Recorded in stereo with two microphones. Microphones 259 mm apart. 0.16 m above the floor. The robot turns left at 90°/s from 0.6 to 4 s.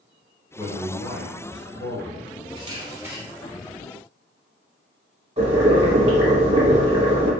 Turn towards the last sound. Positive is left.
turn(degrees=-25)  # may be behind; listen again after turning